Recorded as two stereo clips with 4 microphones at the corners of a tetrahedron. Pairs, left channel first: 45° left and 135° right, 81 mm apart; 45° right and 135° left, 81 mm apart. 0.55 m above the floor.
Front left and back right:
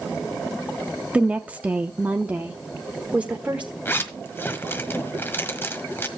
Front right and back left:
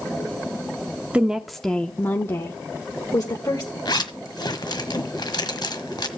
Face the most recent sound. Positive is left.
turn(degrees=-20)